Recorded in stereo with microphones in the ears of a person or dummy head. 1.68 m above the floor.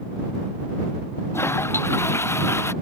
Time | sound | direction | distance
1.3 | a toilet flushing | 10° left (ahead or behind) | ?